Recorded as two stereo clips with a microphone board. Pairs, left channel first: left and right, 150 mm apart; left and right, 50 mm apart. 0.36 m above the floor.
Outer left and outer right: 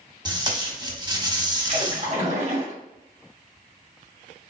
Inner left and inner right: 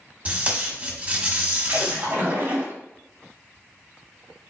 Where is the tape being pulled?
30° right (ahead or behind), 1.2 m.